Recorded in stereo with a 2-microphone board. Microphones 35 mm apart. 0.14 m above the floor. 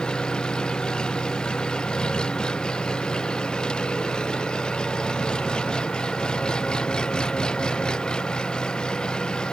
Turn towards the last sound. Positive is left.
turn(degrees=25)  # may be behind; listen again after turning